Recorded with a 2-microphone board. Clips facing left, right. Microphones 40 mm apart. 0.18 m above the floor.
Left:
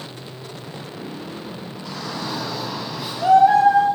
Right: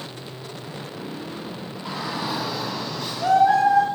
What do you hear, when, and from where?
1.9 s a shout: 20° right (ahead or behind), 1.7 m; by 3.9 s 30° left (ahead or behind), 1.8 m